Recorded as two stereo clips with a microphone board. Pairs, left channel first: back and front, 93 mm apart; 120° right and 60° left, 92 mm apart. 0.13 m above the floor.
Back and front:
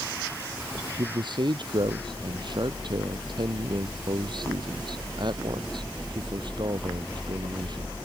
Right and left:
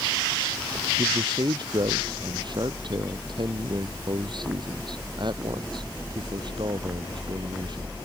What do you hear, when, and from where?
1.0 s a man speaking: 30° left